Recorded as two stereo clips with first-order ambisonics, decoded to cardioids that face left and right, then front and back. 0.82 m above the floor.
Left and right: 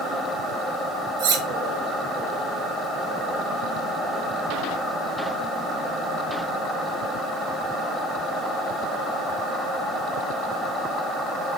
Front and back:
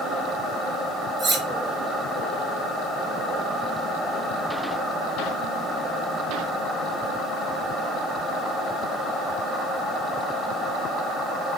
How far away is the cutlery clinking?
About 0.9 m.